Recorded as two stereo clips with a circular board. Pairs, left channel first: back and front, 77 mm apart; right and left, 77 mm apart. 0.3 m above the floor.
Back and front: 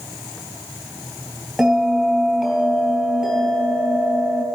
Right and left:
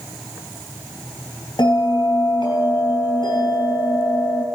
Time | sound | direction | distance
1.6 | a bell | 90° right | 3.5 m